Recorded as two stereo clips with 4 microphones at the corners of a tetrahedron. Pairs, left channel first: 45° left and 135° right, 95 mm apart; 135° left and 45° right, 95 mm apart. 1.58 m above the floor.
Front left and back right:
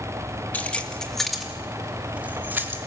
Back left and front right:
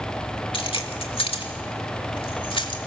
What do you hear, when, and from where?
0.5 s keys jangling: 115° left, 2 m; by 2.8 s 160° left, 3 m